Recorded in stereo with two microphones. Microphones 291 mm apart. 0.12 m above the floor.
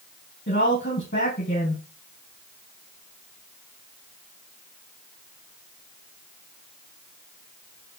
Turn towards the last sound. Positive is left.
turn(degrees=40)  # may be behind; listen again after turning